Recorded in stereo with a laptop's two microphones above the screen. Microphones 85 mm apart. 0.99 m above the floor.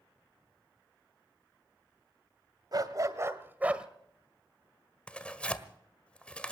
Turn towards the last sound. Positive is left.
turn(degrees=10)  # may be behind; listen again after turning